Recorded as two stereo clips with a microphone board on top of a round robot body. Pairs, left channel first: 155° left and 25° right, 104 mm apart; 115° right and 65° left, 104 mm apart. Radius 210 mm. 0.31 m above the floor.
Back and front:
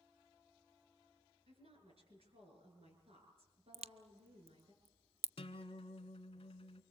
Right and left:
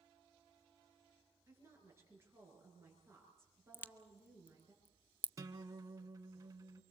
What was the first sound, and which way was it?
A woman speaking, 5° left.